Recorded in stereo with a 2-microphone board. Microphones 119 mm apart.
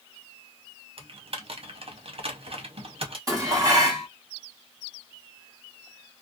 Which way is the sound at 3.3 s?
30° right (ahead or behind).